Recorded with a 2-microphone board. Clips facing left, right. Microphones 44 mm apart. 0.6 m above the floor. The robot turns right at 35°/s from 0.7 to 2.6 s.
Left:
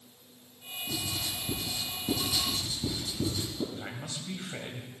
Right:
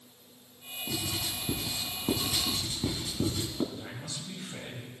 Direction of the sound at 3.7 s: 45° left (ahead or behind).